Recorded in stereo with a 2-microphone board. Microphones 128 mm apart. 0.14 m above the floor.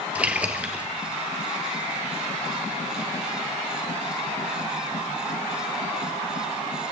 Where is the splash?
10° right (ahead or behind), 2.0 m.